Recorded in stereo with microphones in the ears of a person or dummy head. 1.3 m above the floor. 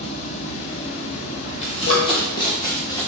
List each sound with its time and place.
0.0 s running water: 65° left (ahead or behind), 2.5 m
1.6 s running footsteps: 30° left (ahead or behind), 1.8 m; by 3.1 s 15° left (ahead or behind), 2.5 m